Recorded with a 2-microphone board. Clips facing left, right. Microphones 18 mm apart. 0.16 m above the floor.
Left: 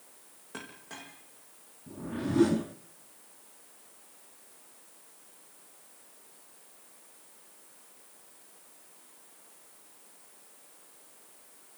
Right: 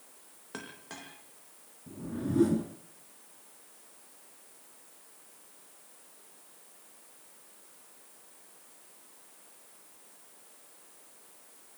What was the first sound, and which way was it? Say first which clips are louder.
A clink: even; 20° right (ahead or behind).